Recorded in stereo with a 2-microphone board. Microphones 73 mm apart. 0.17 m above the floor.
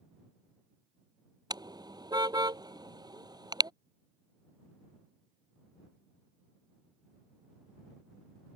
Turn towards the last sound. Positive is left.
turn(degrees=-70)  # may be behind; listen again after turning